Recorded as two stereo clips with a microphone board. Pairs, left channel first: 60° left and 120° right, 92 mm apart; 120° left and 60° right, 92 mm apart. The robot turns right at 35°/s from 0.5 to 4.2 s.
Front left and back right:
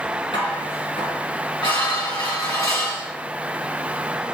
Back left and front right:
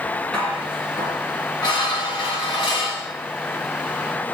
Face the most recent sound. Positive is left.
turn(degrees=170)